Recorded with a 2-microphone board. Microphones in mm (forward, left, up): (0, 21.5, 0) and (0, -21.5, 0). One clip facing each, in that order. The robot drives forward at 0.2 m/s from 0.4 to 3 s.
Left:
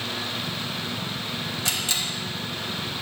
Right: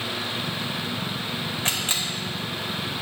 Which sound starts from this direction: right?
A camera shutter, at 1.6 s.